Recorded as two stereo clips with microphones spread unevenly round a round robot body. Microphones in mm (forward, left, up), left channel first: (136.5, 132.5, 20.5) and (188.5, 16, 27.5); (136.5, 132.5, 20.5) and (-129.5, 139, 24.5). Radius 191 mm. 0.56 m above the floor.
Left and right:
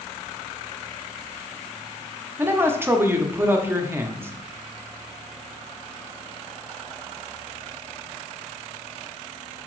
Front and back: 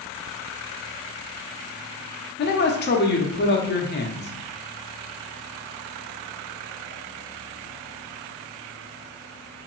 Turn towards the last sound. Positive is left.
turn(degrees=5)